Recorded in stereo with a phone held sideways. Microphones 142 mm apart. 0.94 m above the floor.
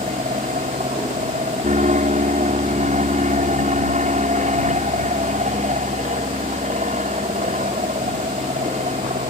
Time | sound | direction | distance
0.0 | an aircraft | 60° right (ahead or behind) | ?